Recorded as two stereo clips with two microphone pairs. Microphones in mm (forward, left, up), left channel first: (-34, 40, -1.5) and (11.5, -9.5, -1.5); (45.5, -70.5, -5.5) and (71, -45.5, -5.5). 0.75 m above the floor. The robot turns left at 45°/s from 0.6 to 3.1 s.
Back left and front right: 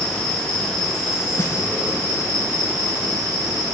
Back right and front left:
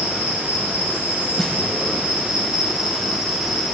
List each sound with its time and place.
0.0 s an insect: 65° left, 2 m; by 3.8 s 45° right, 2 m
1.4 s a snare drum: 150° left, 0.7 m; by 1.6 s 140° left, 0.7 m